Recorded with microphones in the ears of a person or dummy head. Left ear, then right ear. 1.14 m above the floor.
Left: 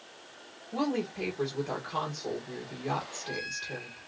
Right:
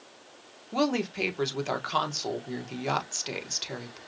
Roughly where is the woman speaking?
Right.